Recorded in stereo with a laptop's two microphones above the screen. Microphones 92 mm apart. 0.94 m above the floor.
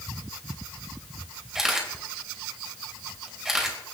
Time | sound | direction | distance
1.6 | a camera shutter | 5° right (ahead or behind) | 2 m